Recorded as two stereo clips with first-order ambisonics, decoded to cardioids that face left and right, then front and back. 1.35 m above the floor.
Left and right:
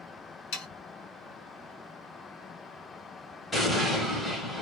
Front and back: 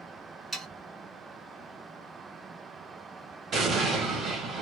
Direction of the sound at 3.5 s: 160° left.